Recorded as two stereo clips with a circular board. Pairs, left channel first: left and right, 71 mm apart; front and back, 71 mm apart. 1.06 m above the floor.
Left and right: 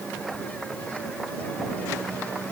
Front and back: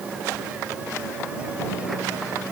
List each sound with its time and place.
Only background noise.